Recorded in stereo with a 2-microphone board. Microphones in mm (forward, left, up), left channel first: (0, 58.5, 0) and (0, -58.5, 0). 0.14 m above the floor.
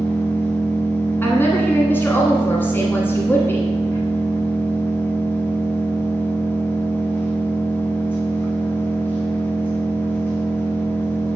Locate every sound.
0.0 s an engine running: 20° left (ahead or behind), 1.8 m
1.2 s a woman speaking: 20° left (ahead or behind), 1.2 m